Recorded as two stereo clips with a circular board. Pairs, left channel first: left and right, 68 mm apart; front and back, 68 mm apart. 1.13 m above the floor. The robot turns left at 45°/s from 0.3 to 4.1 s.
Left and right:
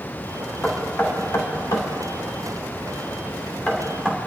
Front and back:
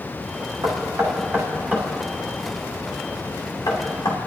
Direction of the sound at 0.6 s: 165° left.